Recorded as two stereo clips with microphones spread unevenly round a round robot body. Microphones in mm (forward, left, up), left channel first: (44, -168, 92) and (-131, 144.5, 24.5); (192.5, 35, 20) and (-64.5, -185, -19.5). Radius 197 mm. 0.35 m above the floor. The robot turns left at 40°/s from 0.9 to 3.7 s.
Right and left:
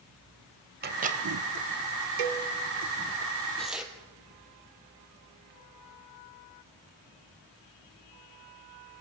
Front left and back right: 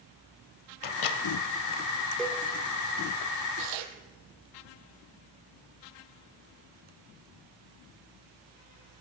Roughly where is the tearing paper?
Behind right.